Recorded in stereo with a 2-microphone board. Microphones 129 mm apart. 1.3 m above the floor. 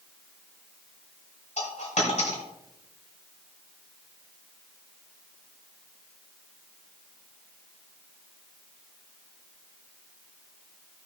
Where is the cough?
No cough in this recording.